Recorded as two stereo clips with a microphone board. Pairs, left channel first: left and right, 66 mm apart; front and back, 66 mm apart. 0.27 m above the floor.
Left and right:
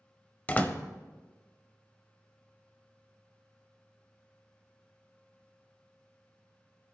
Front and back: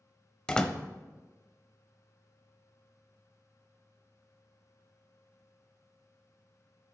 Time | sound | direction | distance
0.5 | a door slam | 60° left | 0.6 m